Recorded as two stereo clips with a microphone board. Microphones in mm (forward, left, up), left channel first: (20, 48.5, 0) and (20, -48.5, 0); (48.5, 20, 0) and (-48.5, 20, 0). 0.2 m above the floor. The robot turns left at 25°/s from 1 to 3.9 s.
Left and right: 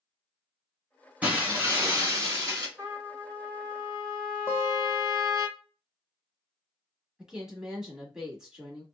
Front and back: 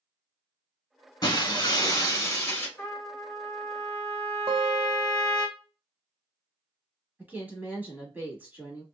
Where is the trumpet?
45° right, 1.6 m; by 5.5 s 70° right, 1.6 m.